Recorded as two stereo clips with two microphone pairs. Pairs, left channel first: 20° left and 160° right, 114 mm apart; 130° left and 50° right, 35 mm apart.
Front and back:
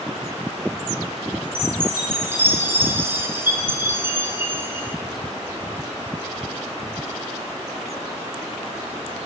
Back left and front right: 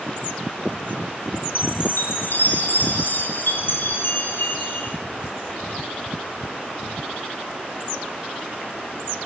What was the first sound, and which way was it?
A chime, 130° left.